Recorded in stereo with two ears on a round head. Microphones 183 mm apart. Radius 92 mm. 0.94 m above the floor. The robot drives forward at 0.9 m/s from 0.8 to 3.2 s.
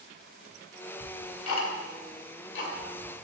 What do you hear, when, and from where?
1.0 s ticking: 80° left, 2 m; by 3.1 s 50° left (ahead or behind), 2.5 m